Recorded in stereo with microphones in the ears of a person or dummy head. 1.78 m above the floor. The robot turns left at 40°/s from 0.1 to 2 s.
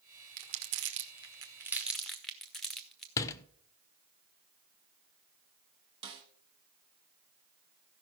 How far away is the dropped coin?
I don't hear a dropped coin.